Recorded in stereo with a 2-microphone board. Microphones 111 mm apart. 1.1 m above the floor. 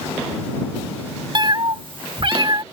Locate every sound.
1.4 s a cat meowing: 45° right (ahead or behind)